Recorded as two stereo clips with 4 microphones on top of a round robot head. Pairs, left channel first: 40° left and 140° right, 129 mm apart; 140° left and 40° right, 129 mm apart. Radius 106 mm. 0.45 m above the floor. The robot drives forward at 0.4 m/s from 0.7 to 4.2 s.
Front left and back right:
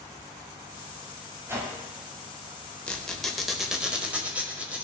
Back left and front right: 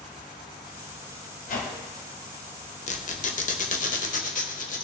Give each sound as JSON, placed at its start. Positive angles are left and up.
{"t": 1.5, "sound": "a whoosh", "azimuth_deg": 150, "distance_m": 1.9}
{"t": 2.9, "sound": "a squeak", "azimuth_deg": 120, "distance_m": 1.1}